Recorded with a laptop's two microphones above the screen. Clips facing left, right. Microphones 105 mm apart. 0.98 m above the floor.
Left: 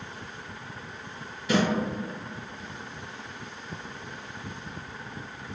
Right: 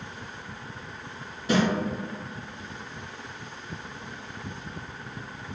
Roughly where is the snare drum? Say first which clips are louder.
Right 1 dB; right.